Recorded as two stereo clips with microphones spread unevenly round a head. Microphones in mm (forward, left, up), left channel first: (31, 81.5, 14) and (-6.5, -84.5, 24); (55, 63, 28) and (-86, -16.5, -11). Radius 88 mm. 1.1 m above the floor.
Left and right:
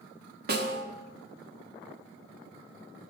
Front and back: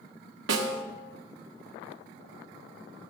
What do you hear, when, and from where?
0.5 s a snare drum: 145° right, 1.2 m